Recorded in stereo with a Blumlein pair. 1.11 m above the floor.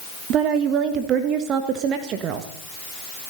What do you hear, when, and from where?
0.3 s a woman speaking: 30° right, 1.4 m